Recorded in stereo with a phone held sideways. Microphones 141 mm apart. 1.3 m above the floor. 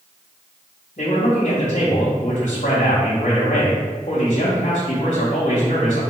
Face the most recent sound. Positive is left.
turn(degrees=65)  # may be behind; listen again after turning